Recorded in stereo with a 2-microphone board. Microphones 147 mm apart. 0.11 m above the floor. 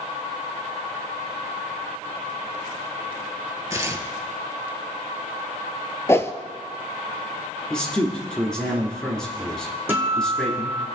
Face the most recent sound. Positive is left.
turn(degrees=-15)  # may be behind; listen again after turning